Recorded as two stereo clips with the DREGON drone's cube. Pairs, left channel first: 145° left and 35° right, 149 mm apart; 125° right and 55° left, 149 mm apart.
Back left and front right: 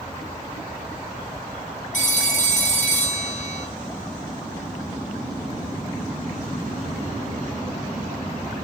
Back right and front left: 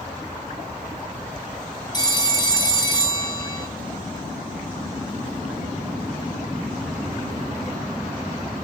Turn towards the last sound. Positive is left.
turn(degrees=175)